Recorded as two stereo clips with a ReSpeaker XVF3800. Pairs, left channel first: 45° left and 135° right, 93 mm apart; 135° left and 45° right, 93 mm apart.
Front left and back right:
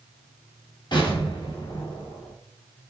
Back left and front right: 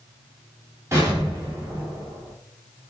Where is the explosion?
15° left, 3.5 m.